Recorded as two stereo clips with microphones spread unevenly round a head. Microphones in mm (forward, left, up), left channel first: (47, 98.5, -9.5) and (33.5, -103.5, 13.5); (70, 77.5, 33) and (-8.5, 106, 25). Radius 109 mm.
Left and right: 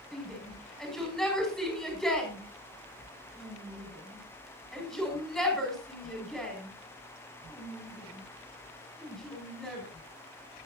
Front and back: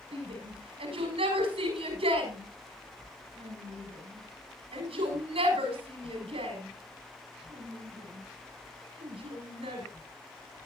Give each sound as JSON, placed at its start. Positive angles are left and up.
{"t": 0.1, "sound": "a shout", "azimuth_deg": 175, "distance_m": 6.5}